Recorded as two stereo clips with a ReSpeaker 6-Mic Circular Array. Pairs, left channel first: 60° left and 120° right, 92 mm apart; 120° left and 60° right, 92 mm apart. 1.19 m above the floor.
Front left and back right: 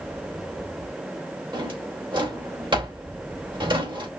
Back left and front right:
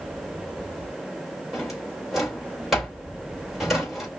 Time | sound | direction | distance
1.5 | a drawer | 145° right | 3 m